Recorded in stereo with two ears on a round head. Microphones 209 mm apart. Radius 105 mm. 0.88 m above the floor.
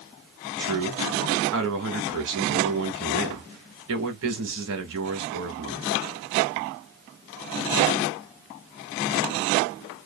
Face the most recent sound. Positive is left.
turn(degrees=-60)  # may be behind; listen again after turning